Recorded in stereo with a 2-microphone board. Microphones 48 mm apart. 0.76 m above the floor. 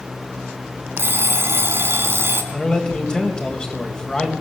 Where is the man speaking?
20° left (ahead or behind), 4 m.